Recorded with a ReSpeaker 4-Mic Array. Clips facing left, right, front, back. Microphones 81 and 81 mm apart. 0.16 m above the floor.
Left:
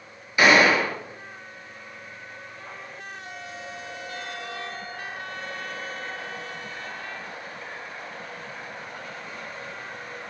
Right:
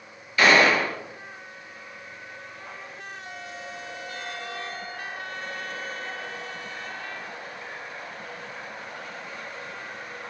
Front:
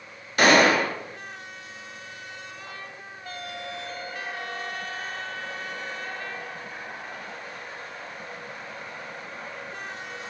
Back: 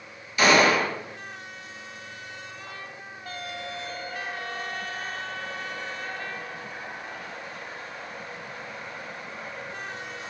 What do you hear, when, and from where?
0.4 s a gunshot: 20° left, 0.6 m